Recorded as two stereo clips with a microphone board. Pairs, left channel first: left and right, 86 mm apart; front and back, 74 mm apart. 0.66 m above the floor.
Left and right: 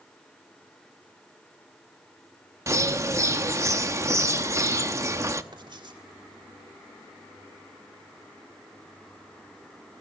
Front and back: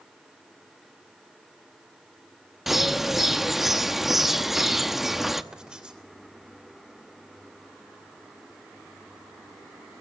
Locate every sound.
2.7 s a bird: 100° right, 0.9 m
5.5 s writing: 105° right, 3 m